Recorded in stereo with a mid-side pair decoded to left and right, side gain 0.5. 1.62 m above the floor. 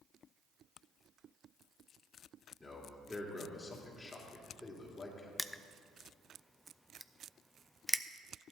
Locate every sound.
2.6 s a man speaking: 25° left, 3 m
5.4 s crushing: straight ahead, 0.5 m